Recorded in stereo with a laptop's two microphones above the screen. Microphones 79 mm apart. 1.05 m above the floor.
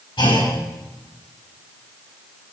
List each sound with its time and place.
0.2 s a clunk: 75° left (ahead or behind), 6 m